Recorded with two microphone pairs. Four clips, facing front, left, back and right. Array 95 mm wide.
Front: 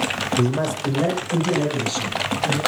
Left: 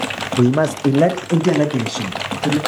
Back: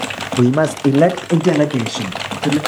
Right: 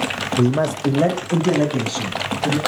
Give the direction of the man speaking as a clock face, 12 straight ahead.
8 o'clock.